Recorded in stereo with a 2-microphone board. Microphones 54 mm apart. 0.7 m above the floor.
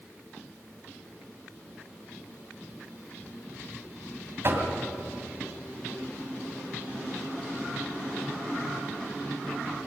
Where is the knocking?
50° right (ahead or behind), 3 m.